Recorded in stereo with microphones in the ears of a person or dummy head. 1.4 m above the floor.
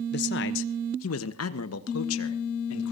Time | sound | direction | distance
0.1 | a man speaking | 55° left (ahead or behind) | 1.1 m